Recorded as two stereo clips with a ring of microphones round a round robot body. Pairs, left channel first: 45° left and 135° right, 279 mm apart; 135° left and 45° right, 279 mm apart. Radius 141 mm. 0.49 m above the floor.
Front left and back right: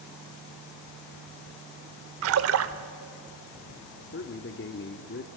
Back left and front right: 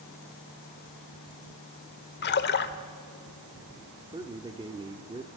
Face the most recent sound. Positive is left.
turn(degrees=25)